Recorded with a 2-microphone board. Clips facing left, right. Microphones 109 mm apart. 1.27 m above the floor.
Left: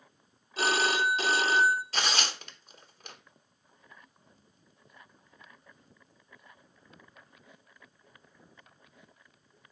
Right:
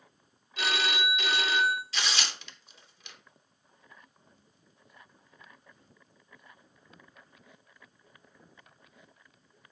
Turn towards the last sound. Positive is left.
turn(degrees=45)  # may be behind; listen again after turning